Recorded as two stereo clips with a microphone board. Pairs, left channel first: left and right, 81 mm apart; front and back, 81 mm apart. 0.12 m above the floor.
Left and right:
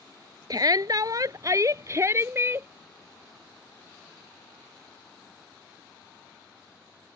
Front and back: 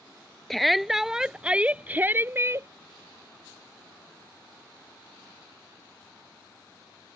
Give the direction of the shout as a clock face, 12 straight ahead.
3 o'clock.